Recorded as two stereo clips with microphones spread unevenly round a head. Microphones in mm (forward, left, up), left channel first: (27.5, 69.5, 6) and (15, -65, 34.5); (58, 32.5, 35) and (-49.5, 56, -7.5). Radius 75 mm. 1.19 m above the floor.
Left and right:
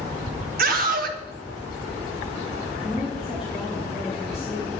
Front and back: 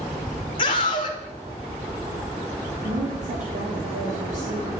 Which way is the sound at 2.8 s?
175° left.